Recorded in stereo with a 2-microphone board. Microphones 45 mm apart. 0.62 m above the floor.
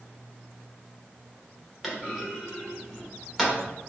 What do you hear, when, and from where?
1.8 s a clunk: centre (ahead or behind), 0.9 m